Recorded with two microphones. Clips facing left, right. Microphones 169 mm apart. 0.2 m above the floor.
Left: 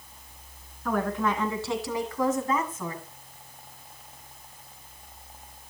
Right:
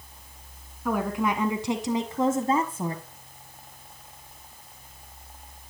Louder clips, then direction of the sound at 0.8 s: Right 1 dB; 10° right (ahead or behind).